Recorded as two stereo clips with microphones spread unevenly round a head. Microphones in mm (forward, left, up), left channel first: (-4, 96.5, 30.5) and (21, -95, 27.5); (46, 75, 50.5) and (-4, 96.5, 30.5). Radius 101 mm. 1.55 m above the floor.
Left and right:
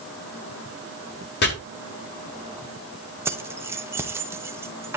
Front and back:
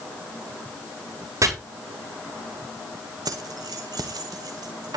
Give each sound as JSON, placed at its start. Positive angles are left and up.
{"t": 1.4, "sound": "chopping", "azimuth_deg": 135, "distance_m": 6.5}
{"t": 3.2, "sound": "keys jangling", "azimuth_deg": -160, "distance_m": 1.3}